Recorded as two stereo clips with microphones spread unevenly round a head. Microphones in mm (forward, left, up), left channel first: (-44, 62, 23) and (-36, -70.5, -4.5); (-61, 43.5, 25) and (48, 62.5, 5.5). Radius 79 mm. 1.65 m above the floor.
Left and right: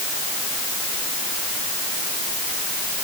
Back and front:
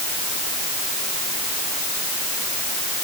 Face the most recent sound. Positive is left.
No sound to turn to.